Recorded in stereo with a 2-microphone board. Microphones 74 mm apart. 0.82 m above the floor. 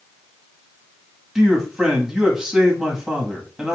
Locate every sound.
1.4 s a man speaking: 10° right (ahead or behind), 1.3 m